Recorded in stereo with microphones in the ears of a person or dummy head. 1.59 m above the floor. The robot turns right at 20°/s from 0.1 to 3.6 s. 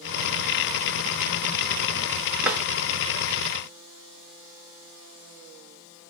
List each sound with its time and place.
2.4 s a drawer: 10° right (ahead or behind), 1.8 m; by 2.6 s 15° right (ahead or behind), 1.8 m